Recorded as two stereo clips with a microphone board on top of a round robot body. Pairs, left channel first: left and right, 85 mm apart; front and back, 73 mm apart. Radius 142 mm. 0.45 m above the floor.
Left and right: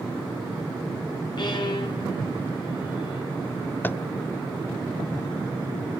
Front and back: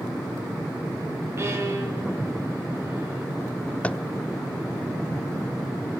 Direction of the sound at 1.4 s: 125° left.